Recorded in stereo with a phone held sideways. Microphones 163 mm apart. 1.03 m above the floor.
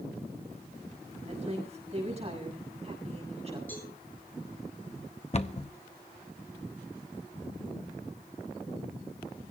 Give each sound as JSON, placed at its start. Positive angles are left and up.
{"t": 1.3, "sound": "a woman speaking", "side_deg": -40, "distance_m": 7.5}
{"t": 3.7, "sound": "a cowbell", "side_deg": 10, "distance_m": 9.0}
{"t": 5.3, "sound": "a cupboard door", "side_deg": 40, "distance_m": 0.8}